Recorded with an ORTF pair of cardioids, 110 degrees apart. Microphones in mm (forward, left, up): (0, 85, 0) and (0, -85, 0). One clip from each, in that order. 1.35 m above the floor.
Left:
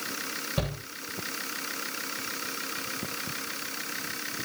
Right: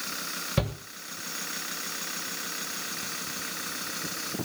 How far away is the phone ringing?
I don't hear a phone ringing.